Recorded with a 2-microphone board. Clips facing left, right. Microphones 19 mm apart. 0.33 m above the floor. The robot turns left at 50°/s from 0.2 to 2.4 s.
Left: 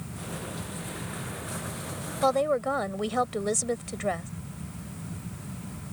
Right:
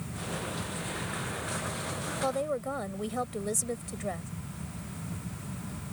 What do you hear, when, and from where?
2.2 s a woman speaking: 35° left (ahead or behind)